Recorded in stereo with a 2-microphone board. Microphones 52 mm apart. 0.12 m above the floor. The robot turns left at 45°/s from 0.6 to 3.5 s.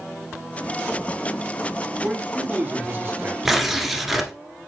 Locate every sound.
2.0 s a man speaking: 10° right, 2.0 m; by 3.4 s 70° right, 2.0 m
3.5 s tearing paper: 5° right (ahead or behind), 1.2 m